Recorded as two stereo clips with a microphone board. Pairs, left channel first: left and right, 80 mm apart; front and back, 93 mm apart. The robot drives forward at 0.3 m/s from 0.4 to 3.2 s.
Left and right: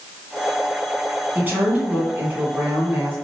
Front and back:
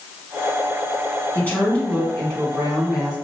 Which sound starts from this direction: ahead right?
A woman speaking, at 1.4 s.